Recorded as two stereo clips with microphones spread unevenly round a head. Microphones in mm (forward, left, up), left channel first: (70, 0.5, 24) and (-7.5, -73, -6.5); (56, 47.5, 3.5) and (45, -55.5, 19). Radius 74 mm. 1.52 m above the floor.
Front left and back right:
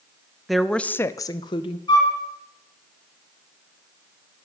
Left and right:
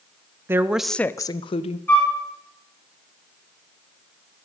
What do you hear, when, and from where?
0.5 s a woman speaking: 40° right, 0.8 m; by 1.8 s 70° left, 0.8 m
1.9 s a flute: 10° left, 5 m